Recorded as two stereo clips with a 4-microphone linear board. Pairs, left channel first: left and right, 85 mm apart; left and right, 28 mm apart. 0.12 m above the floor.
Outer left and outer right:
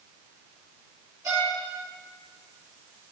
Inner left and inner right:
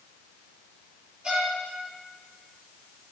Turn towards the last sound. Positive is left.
turn(degrees=-30)  # may be behind; listen again after turning